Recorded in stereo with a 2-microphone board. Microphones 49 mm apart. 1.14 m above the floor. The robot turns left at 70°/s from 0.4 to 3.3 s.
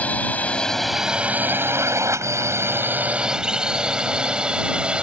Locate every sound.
0.0 s a drone: 30° left (ahead or behind); by 5.0 s 20° right (ahead or behind)